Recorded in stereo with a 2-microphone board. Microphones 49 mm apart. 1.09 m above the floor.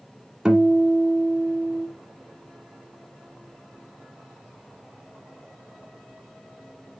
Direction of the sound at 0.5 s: 15° right (ahead or behind).